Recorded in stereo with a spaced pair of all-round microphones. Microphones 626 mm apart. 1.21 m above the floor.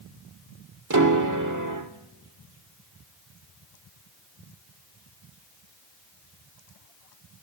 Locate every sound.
0.9 s a piano: 30° right (ahead or behind), 1.2 m